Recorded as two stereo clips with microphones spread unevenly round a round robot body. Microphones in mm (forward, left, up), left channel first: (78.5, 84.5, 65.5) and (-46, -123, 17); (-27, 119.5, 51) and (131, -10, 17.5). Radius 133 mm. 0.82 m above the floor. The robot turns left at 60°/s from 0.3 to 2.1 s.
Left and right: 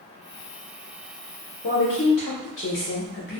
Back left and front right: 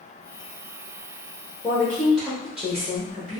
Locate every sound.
1.6 s a woman speaking: 60° left, 0.9 m; by 3.4 s 30° left, 0.9 m